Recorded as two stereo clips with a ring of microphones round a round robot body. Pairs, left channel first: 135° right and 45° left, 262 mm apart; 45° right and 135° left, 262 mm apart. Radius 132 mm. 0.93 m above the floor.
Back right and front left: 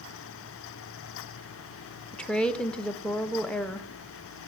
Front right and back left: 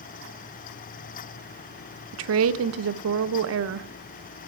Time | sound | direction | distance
2.1 | a woman speaking | 140° left | 0.5 m